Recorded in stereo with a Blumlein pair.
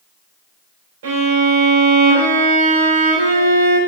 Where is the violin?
60° right, 3.5 m.